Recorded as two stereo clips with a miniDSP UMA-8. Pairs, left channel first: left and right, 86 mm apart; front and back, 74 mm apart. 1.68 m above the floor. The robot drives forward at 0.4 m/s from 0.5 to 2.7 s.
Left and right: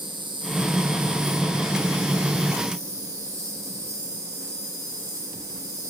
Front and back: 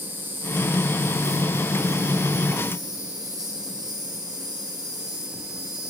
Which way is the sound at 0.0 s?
115° right.